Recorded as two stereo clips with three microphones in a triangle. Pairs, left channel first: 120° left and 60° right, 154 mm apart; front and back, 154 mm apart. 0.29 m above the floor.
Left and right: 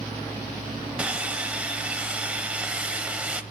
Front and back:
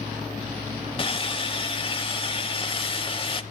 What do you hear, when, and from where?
1.0 s sawing: 15° left, 0.7 m